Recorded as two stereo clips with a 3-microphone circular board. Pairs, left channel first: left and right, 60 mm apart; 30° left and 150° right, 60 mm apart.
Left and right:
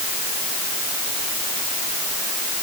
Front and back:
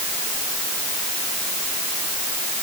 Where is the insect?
I don't hear an insect.